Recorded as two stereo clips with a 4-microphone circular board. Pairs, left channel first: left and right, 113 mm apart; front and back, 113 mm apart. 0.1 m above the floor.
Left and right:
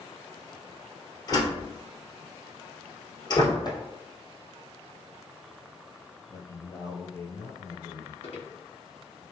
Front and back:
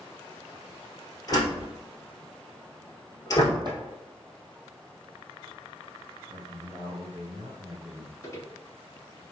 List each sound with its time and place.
1.3 s a door slam: 45° left, 1.7 m
3.6 s chopping: 135° left, 1.6 m
6.3 s a man speaking: 135° left, 1.7 m
8.2 s footsteps: 60° left, 1.8 m